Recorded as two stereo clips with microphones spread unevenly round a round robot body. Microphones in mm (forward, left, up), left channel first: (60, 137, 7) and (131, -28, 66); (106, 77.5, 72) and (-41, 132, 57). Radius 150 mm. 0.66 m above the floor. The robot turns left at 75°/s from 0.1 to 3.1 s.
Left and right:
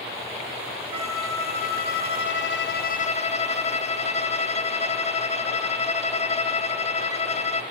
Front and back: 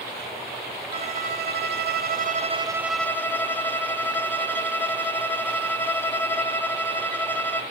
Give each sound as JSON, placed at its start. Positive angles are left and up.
{"t": 0.9, "sound": "a violin", "azimuth_deg": -135, "distance_m": 0.8}